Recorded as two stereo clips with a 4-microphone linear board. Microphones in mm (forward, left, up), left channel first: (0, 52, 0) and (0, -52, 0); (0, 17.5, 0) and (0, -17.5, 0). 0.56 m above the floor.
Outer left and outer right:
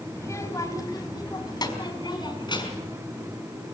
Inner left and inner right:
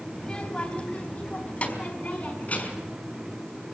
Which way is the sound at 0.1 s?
25° left (ahead or behind).